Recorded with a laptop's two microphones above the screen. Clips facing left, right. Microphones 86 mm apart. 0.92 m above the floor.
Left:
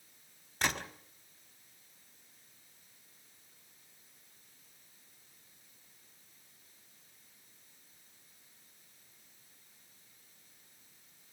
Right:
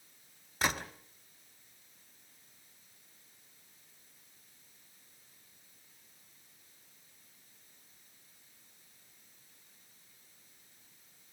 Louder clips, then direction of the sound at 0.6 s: Right 1 dB; 5° right (ahead or behind).